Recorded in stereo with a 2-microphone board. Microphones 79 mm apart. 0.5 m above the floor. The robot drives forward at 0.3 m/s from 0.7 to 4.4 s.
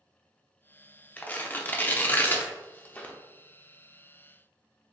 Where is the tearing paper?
20° left (ahead or behind), 0.5 m.